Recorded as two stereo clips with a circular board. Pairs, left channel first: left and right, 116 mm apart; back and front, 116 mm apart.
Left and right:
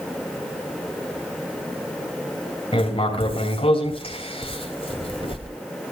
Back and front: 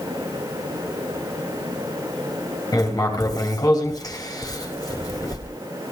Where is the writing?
125° left, 4.5 m.